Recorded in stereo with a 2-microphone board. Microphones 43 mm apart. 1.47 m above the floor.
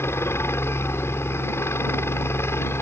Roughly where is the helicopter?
Left.